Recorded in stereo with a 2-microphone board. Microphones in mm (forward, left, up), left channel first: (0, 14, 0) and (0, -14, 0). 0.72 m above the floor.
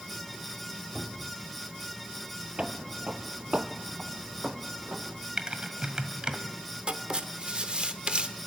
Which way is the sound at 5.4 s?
40° right (ahead or behind).